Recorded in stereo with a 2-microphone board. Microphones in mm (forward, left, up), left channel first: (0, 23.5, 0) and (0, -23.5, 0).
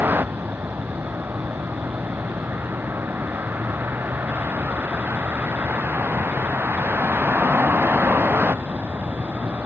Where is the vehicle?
45° right (ahead or behind).